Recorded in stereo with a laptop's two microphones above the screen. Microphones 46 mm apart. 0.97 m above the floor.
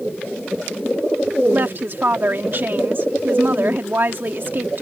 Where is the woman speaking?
50° right (ahead or behind).